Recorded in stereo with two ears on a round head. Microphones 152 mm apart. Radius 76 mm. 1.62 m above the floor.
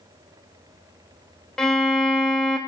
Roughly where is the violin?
Centre.